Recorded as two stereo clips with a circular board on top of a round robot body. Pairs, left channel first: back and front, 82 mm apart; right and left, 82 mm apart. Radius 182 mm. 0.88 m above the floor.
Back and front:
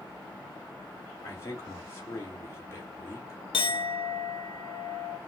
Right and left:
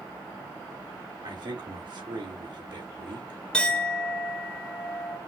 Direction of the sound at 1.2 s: 120° left.